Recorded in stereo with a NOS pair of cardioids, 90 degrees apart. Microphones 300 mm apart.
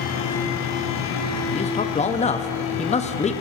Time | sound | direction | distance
0.0 | a fan | 65° left | 1.1 m
1.5 | a man speaking | 25° left | 0.6 m